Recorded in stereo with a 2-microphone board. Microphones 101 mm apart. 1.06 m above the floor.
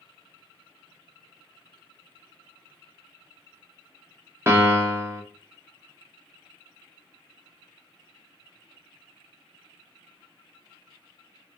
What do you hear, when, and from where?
4.5 s a piano: 25° right (ahead or behind), 0.6 m